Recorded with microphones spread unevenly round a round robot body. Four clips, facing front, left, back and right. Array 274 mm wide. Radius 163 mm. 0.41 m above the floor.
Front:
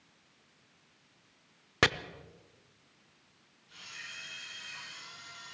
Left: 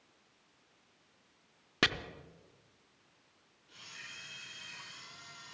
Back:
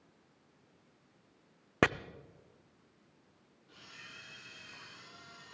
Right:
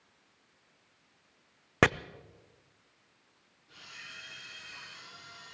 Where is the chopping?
80° right, 0.5 m.